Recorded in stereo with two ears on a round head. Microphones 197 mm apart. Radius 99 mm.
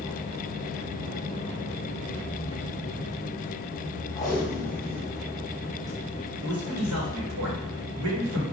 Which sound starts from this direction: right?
A man speaking, at 6.4 s.